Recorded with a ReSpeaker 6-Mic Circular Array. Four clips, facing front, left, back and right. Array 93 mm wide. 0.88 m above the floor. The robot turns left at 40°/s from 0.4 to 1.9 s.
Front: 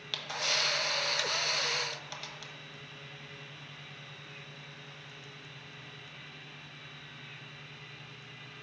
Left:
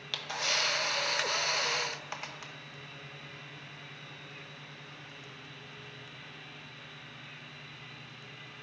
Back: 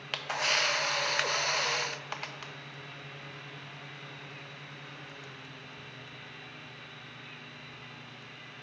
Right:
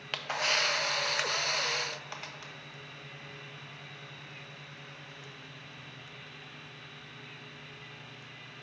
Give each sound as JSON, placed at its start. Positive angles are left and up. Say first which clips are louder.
{"t": 0.1, "sound": "a camera shutter", "louder": "right 3 dB, back 4 dB", "azimuth_deg": -135, "distance_m": 0.5}